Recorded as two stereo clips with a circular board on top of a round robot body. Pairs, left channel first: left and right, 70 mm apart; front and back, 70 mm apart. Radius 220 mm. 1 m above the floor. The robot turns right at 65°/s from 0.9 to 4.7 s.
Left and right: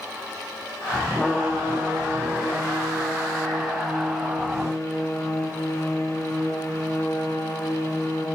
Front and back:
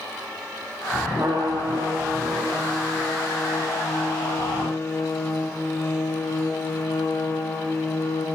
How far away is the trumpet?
About 1.4 m.